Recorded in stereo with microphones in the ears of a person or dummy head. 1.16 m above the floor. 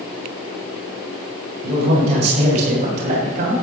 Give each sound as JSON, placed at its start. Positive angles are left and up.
{"t": 1.6, "sound": "a man speaking", "side_deg": -35, "distance_m": 6.0}